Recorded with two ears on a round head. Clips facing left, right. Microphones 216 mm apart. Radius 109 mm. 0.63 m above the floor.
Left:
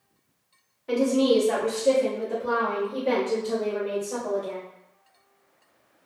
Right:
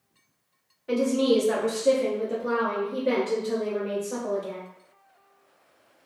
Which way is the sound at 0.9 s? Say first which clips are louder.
Left 1 dB; 5° right (ahead or behind).